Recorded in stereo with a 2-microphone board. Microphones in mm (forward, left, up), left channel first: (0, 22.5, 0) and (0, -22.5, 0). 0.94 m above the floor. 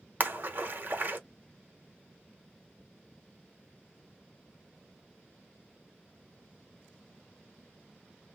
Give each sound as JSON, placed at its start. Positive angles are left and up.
{"t": 0.2, "sound": "a splash", "side_deg": -40, "distance_m": 0.9}